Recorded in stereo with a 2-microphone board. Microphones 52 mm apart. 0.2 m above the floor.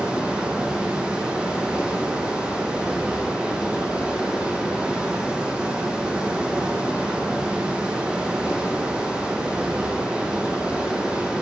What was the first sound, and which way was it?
Running water, 15° right (ahead or behind).